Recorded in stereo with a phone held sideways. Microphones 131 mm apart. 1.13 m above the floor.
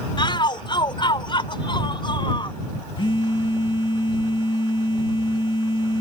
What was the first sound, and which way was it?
A shout, 40° left (ahead or behind).